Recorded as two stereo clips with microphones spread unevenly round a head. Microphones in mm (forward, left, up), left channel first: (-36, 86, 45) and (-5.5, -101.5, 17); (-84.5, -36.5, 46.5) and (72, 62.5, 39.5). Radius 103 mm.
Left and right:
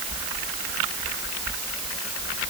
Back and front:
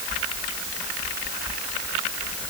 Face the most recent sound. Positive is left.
No sound to turn to.